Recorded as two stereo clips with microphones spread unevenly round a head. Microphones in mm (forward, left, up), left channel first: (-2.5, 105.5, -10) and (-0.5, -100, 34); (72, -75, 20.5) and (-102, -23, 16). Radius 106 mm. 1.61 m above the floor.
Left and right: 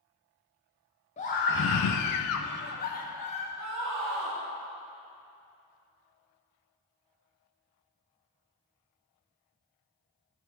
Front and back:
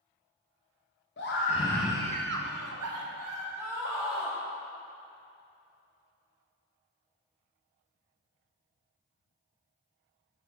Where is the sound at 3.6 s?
115° right, 1.0 m.